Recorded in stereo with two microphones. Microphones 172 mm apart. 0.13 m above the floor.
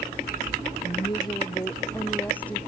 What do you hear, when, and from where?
0.8 s a woman speaking: 30° left (ahead or behind); by 2.6 s 5° left (ahead or behind)